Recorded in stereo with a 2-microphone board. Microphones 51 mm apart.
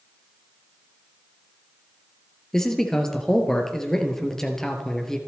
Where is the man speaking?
10° left (ahead or behind), 3 m.